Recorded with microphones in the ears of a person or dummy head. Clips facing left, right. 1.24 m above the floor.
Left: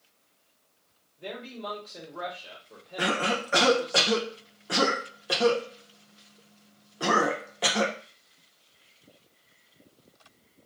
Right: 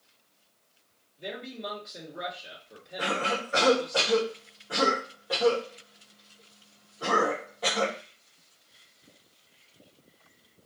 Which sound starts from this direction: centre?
A man speaking, at 1.2 s.